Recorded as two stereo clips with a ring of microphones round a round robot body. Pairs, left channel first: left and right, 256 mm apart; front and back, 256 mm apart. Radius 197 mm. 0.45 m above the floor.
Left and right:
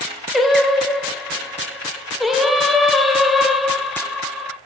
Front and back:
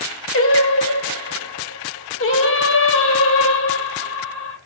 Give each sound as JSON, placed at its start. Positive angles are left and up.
{"t": 0.3, "sound": "singing", "azimuth_deg": 0, "distance_m": 2.0}